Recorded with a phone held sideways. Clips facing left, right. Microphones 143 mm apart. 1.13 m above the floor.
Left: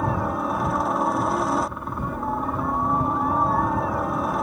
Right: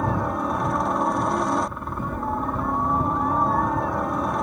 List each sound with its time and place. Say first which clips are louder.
0.0 s a helicopter: even; centre (ahead or behind)